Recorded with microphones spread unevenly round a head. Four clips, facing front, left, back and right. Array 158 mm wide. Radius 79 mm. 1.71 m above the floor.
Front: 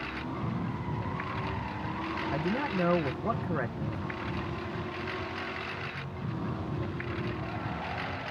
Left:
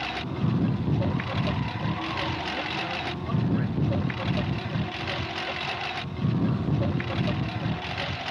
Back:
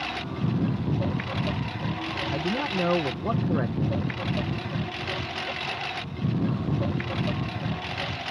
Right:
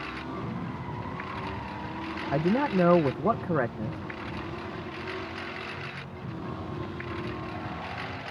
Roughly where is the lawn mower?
Behind left.